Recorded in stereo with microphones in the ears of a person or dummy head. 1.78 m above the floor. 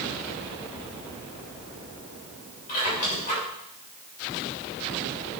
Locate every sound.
2.7 s a squeak: 45° left (ahead or behind), 6.5 m